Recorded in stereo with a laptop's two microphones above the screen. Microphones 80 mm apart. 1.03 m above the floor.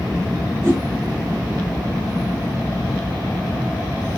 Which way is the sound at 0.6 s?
30° right (ahead or behind).